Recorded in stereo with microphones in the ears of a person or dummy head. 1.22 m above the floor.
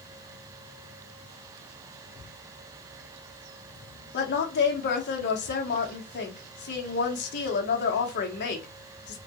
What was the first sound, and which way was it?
A woman speaking, 50° left (ahead or behind).